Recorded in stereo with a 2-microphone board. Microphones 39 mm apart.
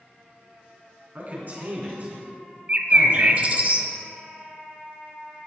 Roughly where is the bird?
Right.